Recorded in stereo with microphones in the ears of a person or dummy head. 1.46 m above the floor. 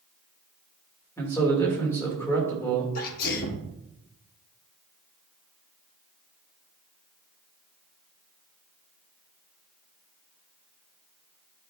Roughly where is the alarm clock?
I don't hear an alarm clock.